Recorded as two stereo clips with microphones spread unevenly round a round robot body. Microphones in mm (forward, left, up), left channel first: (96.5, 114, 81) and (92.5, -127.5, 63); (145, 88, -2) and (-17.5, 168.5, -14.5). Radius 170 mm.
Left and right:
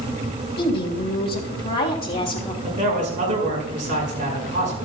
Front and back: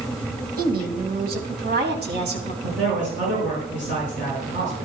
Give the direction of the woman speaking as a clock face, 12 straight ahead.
7 o'clock.